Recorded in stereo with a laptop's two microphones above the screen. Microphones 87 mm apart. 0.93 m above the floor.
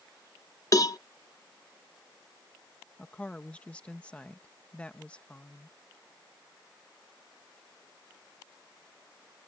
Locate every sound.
0.7 s a cowbell: 40° left (ahead or behind)
3.0 s a woman speaking: 15° left (ahead or behind)